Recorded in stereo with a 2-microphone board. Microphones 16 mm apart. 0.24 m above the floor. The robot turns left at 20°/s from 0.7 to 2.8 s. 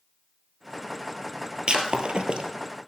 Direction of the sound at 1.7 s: 65° right (ahead or behind).